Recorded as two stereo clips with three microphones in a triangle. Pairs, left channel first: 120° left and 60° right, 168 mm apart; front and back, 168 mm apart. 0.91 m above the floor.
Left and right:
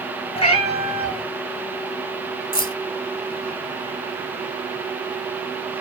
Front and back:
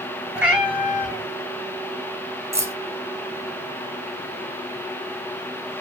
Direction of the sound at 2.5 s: 110° left.